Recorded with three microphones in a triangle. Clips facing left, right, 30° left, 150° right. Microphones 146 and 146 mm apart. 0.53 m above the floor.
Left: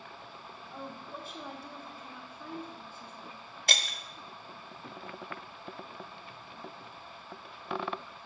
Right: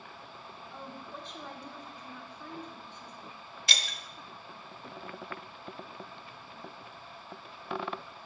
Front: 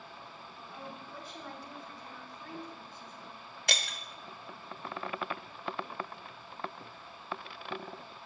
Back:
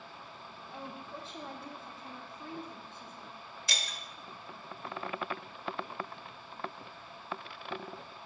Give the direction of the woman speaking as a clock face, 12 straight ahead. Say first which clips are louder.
Left 2 dB, back 2 dB; 6 o'clock.